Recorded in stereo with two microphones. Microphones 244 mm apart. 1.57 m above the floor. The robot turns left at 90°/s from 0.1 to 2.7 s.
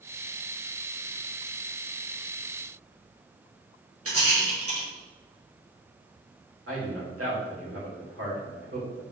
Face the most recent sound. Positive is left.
turn(degrees=-80)